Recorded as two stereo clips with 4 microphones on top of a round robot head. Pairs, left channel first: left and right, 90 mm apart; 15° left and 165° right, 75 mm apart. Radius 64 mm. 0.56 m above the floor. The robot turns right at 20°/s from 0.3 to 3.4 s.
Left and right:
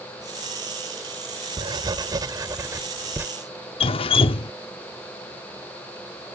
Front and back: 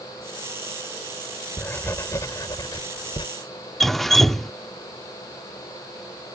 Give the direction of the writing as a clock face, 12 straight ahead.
2 o'clock.